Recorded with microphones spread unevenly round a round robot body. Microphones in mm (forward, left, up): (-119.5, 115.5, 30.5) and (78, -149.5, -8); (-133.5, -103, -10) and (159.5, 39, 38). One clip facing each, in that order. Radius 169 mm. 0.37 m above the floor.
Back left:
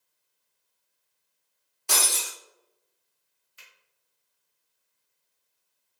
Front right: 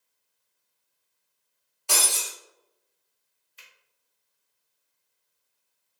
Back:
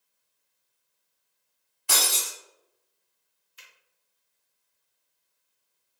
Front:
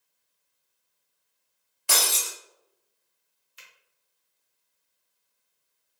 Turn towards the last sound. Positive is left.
turn(degrees=45)